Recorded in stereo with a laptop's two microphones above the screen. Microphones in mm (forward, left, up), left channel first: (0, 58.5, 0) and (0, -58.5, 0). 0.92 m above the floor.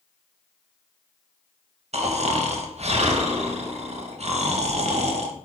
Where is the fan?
No fan in this recording.